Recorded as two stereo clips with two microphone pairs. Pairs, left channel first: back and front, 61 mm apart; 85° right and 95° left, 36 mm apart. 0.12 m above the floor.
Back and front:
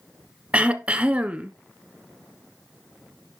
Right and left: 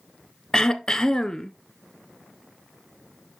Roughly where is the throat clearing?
Ahead right.